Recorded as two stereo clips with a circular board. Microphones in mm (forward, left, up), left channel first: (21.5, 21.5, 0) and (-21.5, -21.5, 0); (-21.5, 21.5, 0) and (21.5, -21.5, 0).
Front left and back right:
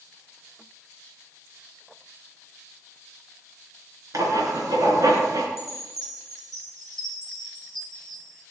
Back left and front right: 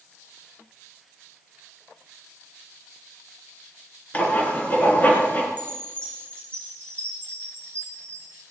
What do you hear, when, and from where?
4.1 s writing: 160° right, 2.5 m
5.6 s a chime: 155° right, 4 m